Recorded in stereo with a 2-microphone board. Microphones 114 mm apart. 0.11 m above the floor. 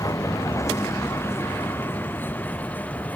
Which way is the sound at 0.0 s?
30° left (ahead or behind).